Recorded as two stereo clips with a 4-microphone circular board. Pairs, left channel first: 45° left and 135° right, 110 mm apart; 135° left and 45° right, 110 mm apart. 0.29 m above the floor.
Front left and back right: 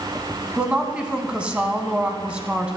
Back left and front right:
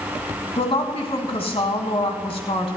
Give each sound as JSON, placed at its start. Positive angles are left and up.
{"t": 0.6, "sound": "a woman speaking", "azimuth_deg": 145, "distance_m": 1.9}